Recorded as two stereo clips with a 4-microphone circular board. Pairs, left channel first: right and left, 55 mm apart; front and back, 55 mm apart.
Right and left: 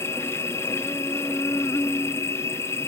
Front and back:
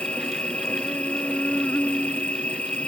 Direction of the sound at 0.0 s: 65° right.